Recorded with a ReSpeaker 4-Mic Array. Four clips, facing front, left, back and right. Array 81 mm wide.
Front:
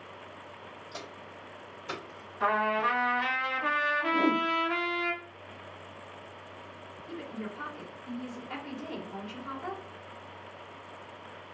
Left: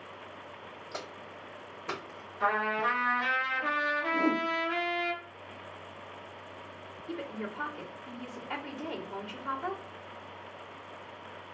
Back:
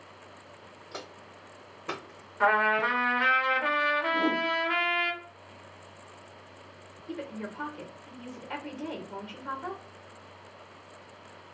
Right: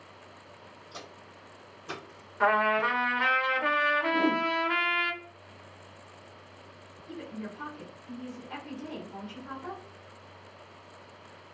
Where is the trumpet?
130° right, 1.5 m.